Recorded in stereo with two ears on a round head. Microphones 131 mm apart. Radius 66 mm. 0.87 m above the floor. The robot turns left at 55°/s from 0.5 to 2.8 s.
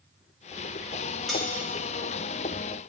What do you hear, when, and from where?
1.3 s cutlery clinking: centre (ahead or behind), 3 m; by 1.4 s 10° left (ahead or behind), 3 m